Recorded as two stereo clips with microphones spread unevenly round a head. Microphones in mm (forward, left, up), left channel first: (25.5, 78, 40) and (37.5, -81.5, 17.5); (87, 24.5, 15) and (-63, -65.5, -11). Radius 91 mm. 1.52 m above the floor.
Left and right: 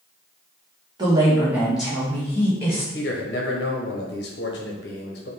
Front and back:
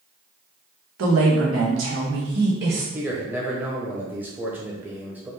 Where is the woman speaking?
155° right, 1.3 m; by 2.8 s 170° left, 1.8 m.